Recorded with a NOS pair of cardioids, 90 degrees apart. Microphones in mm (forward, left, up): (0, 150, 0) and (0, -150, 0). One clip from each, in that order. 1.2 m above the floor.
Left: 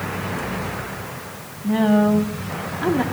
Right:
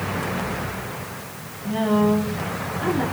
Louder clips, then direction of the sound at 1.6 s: Left 2 dB; 50° left.